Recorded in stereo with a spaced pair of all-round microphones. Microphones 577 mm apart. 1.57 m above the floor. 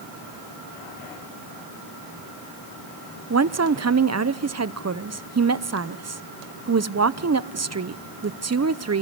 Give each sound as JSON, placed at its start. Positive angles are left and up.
{"t": 3.3, "sound": "a woman speaking", "side_deg": -30, "distance_m": 0.6}